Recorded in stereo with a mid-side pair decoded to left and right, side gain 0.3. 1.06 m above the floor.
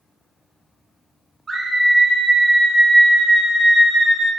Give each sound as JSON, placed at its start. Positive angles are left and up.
{"t": 1.5, "sound": "a scream", "azimuth_deg": -55, "distance_m": 1.0}